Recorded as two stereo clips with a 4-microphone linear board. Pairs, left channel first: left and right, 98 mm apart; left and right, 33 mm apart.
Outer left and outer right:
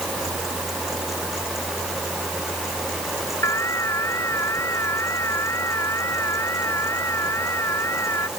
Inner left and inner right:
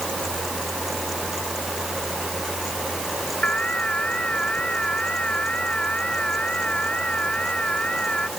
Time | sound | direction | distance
3.4 | an alarm | 30° left (ahead or behind) | ?